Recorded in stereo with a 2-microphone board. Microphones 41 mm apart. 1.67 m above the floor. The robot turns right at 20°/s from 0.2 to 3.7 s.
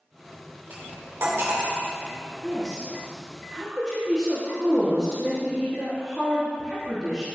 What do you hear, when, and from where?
0.7 s cutlery clinking: 65° right (ahead or behind), 3 m; by 1.6 s 70° right (ahead or behind), 3 m
2.4 s a woman speaking: 20° left (ahead or behind), 3 m; by 7.3 s 5° right (ahead or behind), 3 m